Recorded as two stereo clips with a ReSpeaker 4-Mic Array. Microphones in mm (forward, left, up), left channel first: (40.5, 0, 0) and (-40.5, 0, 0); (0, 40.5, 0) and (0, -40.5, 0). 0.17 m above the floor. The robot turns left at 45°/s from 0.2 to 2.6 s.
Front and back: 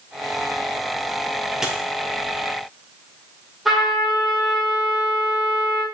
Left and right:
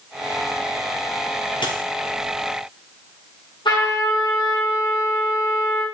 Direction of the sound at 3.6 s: 90° left.